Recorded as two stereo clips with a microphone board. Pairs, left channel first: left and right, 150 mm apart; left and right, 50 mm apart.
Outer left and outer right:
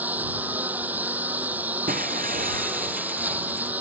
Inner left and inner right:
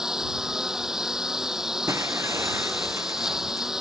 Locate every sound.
0.0 s a lawn mower: 10° right (ahead or behind)
1.9 s breaking glass: 65° right (ahead or behind)